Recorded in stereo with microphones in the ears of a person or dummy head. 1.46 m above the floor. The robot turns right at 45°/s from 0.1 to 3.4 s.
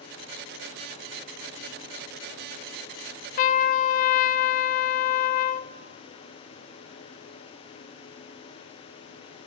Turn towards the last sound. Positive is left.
turn(degrees=50)  # may be behind; listen again after turning